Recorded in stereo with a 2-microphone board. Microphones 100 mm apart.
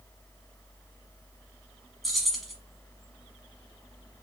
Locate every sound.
2.0 s keys jangling: centre (ahead or behind), 1.1 m